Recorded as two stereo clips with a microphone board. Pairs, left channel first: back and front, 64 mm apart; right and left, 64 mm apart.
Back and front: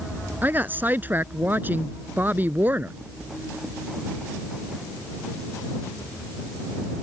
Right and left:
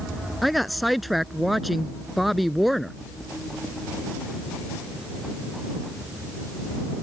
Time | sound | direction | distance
0.4 | a woman speaking | straight ahead | ?